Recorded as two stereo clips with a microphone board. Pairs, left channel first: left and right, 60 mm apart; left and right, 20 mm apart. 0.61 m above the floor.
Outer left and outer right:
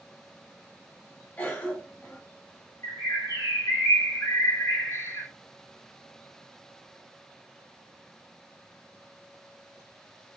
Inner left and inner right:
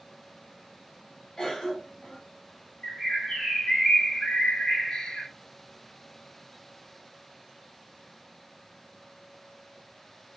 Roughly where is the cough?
Left.